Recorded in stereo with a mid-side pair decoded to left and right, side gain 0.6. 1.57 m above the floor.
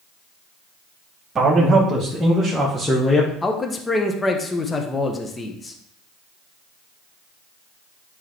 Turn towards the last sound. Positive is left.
turn(degrees=25)